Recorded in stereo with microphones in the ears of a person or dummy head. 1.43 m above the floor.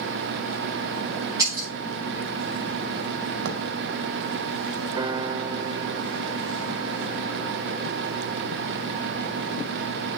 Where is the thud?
55° right (ahead or behind), 3 m.